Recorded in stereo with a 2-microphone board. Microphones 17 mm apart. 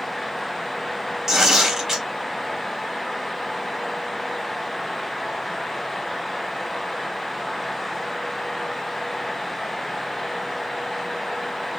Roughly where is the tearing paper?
Right.